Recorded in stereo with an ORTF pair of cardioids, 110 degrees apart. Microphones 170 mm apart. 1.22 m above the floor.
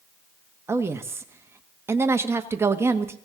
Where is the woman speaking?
15° right, 1.4 m.